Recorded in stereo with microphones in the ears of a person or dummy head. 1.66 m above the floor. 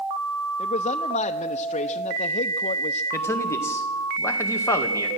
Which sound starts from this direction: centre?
A man speaking, at 3.1 s.